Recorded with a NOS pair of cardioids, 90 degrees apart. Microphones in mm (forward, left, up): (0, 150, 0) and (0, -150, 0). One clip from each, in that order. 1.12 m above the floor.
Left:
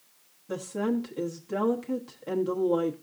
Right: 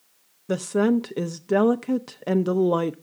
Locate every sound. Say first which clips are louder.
0.5 s a woman speaking: right 8 dB; 60° right, 0.7 m